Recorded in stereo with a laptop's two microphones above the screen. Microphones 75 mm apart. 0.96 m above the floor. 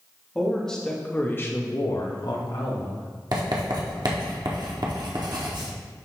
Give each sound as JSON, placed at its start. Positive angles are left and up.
{"t": 0.3, "sound": "a man speaking", "side_deg": 5, "distance_m": 1.9}
{"t": 3.3, "sound": "writing", "side_deg": -65, "distance_m": 1.4}